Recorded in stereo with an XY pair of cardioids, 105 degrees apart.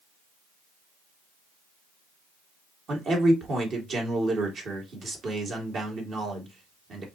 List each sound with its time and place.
2.9 s a man speaking: 55° right, 2.5 m